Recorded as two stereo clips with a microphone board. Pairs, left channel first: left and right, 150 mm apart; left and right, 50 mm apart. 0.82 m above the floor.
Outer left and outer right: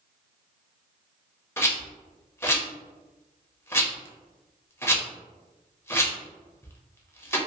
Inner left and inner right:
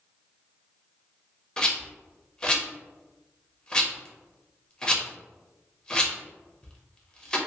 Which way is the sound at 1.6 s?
15° left (ahead or behind).